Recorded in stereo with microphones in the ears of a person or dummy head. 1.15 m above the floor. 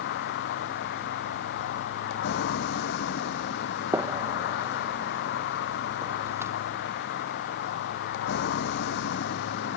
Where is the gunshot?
10° right (ahead or behind).